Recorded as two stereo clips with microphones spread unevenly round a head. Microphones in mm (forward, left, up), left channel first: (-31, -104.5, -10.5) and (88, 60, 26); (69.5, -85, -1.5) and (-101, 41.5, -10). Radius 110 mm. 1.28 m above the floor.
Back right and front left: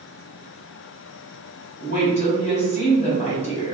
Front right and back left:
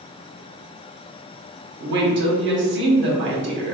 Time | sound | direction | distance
1.8 | a woman speaking | 175° left | 1.0 m